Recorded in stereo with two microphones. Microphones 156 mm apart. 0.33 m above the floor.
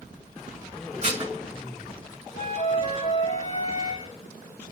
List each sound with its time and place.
1.0 s dishes clattering: 40° right (ahead or behind), 1.9 m
2.4 s a flute: 45° left (ahead or behind), 0.8 m